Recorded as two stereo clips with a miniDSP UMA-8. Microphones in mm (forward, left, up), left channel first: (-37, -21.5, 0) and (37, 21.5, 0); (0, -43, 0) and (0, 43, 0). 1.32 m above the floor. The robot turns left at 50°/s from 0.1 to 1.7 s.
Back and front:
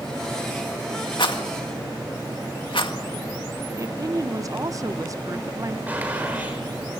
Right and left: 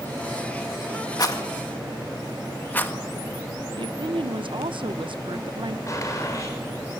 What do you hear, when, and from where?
1.2 s a rattle: 130° right, 1.8 m; by 2.9 s 160° right, 1.8 m
3.8 s a woman speaking: 80° left, 0.8 m
5.9 s a gunshot: 40° right, 6.5 m